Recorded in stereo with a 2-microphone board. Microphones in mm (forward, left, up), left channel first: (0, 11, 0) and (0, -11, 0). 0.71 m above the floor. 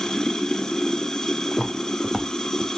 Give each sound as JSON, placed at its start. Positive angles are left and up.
{"t": 0.0, "sound": "running water", "side_deg": 30, "distance_m": 1.0}
{"t": 1.5, "sound": "footsteps", "side_deg": -10, "distance_m": 2.0}